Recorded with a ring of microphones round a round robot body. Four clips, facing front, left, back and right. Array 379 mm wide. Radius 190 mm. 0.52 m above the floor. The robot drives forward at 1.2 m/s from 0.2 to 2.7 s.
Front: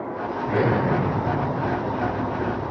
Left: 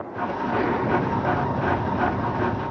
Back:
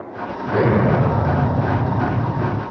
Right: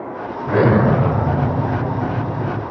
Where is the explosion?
105° right, 1.1 m; by 2.6 s 160° right, 3 m.